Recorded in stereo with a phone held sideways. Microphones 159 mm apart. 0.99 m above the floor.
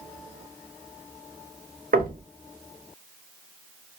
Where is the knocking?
70° right (ahead or behind), 0.8 m.